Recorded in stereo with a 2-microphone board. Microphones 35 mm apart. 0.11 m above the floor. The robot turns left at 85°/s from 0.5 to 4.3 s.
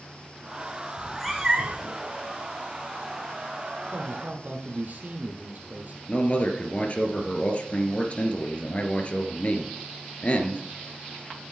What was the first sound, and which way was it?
A cat meowing, 25° left.